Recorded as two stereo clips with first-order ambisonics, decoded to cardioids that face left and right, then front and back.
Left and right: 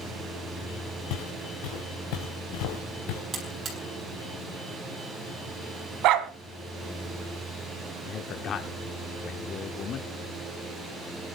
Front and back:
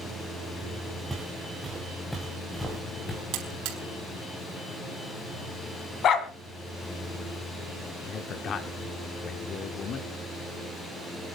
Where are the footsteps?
100° left, 4 m; by 3.2 s 80° left, 4 m.